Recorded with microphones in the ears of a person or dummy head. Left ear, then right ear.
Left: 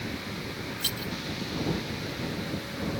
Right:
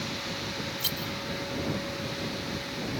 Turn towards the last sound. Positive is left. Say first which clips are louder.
# left 2 dB
turn(degrees=-5)  # may be behind; listen again after turning